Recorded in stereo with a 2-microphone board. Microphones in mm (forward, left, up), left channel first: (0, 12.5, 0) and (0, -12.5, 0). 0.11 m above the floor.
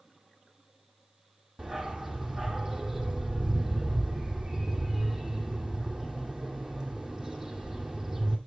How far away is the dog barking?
About 1.6 m.